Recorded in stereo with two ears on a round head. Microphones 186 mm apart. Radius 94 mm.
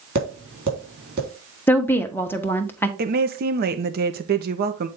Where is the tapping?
45° right (ahead or behind), 3.5 m.